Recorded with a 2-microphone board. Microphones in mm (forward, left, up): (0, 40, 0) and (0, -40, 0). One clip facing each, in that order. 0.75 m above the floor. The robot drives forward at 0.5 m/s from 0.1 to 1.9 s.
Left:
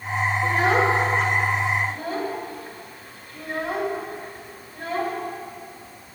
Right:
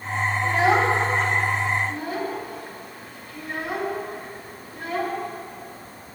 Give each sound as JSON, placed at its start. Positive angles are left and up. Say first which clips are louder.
{"t": 0.4, "sound": "a child speaking", "louder": "right 1 dB", "side_deg": 45, "distance_m": 2.5}